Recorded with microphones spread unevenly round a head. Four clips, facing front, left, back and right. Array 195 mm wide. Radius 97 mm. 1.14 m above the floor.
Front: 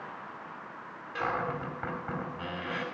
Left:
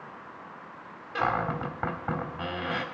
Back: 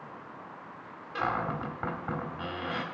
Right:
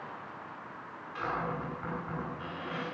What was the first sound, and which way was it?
A cupboard door, 100° left.